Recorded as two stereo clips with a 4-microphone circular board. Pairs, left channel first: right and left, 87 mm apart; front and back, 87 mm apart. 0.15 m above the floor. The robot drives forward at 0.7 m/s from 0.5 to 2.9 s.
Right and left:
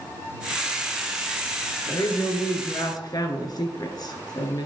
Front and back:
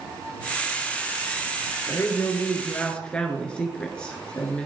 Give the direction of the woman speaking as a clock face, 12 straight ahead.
2 o'clock.